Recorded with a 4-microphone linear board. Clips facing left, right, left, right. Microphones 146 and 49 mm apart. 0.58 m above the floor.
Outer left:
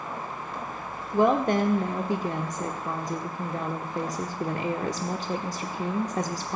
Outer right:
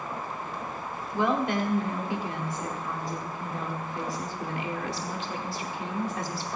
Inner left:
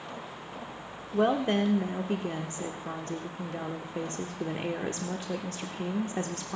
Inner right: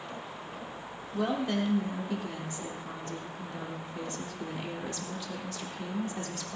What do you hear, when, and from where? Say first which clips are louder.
1.1 s a woman speaking: outer left 5 dB, inner left 5 dB; 40° left (ahead or behind), 1.1 m